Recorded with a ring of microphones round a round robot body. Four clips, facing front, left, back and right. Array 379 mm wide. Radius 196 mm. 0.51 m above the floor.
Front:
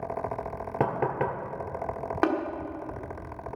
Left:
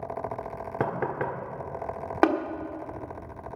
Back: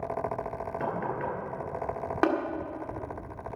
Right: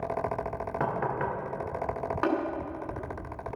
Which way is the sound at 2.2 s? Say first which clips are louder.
Left 6 dB, even; 90° left.